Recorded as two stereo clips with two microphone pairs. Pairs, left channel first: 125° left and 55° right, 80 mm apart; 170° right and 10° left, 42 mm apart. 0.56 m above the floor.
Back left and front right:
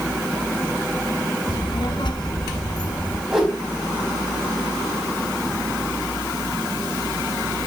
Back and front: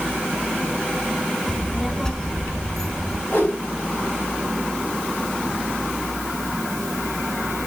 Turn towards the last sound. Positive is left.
turn(degrees=-140)